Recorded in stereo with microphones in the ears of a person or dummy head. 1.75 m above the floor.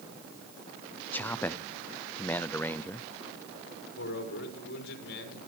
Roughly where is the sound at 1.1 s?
Centre.